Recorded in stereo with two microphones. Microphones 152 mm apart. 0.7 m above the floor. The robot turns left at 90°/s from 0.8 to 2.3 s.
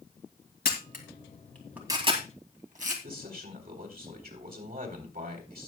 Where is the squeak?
No squeak in this recording.